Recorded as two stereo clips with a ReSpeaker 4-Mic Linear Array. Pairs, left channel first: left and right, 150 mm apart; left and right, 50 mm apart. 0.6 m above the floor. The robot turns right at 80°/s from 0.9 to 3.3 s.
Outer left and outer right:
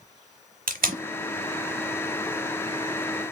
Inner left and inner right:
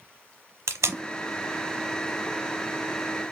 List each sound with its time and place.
0.7 s tape being pulled: 70° right (ahead or behind), 1.0 m; by 1.0 s 75° right (ahead or behind), 1.0 m